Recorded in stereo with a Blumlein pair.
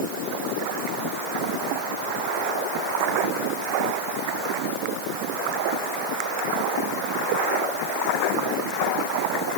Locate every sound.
Only background noise.